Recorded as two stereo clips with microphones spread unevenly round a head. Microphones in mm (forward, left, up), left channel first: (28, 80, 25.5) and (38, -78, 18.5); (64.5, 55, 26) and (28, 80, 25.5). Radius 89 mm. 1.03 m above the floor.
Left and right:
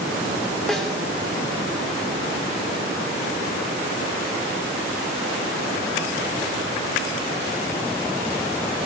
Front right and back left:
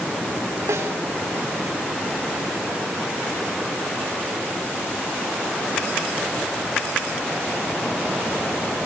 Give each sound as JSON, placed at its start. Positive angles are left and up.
{"t": 0.7, "sound": "a snare drum", "azimuth_deg": 180, "distance_m": 3.5}